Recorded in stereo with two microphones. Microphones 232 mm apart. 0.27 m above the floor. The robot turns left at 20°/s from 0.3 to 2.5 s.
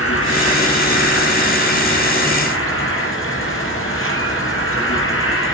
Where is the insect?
110° left, 9 m; by 5.5 s 65° left, 9 m.